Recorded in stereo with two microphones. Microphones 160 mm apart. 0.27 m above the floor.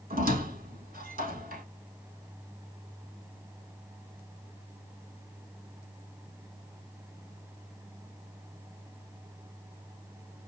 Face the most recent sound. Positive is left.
turn(degrees=-65)  # may be behind; listen again after turning